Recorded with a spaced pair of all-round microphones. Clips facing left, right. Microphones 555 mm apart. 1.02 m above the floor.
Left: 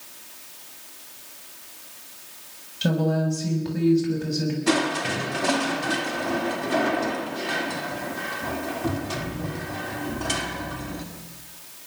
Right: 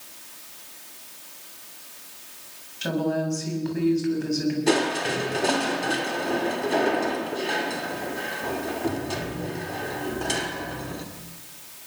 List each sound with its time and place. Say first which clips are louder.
2.8 s a woman speaking: left 2 dB; 55° left (ahead or behind), 6.5 m
4.7 s crushing: right 1 dB; 25° left (ahead or behind), 2.5 m